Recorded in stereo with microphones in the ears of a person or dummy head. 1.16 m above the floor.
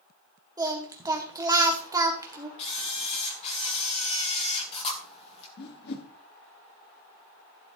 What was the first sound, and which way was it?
Singing, 25° right (ahead or behind).